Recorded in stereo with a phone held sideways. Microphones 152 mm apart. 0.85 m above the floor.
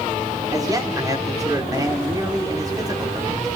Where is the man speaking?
25° right (ahead or behind), 3 m.